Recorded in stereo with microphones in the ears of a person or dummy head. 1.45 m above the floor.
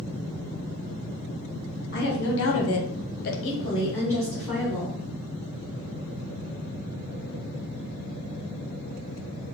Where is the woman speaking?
50° left (ahead or behind), 1.3 m; by 5.0 s centre (ahead or behind), 1.7 m.